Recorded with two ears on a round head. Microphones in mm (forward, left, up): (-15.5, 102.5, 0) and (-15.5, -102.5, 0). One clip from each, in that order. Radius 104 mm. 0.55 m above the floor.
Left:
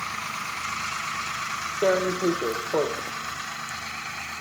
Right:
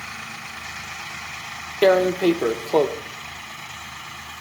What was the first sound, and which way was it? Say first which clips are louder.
Tearing paper: right 6 dB; 65° right (ahead or behind).